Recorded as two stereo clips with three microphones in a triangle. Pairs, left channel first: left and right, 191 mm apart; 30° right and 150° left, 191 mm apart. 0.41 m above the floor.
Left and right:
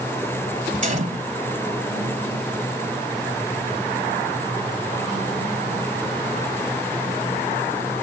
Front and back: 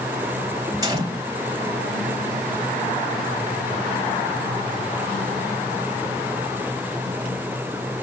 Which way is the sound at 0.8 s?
140° right.